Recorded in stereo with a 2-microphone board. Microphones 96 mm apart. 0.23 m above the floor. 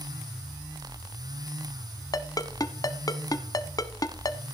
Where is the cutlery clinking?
I don't hear cutlery clinking.